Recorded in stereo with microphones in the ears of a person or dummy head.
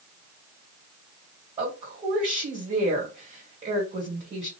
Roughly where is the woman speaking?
Right.